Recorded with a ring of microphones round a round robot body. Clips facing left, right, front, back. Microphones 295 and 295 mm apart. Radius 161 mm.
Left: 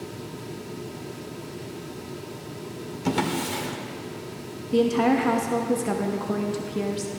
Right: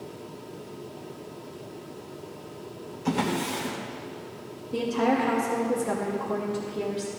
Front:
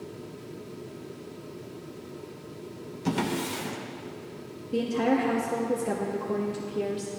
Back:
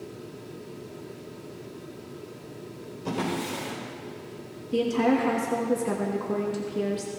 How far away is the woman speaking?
About 1.2 m.